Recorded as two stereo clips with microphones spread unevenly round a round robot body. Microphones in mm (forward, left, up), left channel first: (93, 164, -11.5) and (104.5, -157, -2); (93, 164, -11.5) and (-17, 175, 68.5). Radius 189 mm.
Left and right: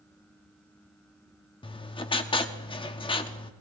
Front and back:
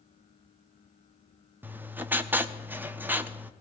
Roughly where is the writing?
Ahead left.